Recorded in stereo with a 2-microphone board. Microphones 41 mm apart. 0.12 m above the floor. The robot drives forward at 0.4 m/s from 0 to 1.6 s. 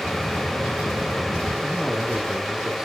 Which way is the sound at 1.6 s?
15° right (ahead or behind).